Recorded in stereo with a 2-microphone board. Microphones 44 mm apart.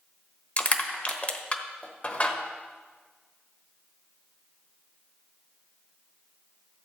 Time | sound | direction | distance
0.6 | crushing | 35° left (ahead or behind) | 1.0 m